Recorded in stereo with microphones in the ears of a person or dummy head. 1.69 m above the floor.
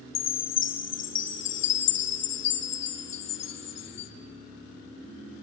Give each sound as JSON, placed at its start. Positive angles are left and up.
{"t": 0.1, "sound": "a chime", "side_deg": 70, "distance_m": 0.8}